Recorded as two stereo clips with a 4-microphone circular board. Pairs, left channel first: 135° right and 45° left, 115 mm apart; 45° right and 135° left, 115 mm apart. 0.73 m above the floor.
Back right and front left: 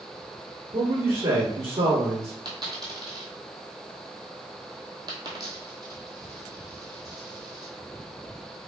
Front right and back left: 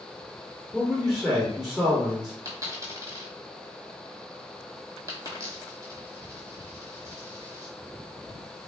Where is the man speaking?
50° left, 1.1 m.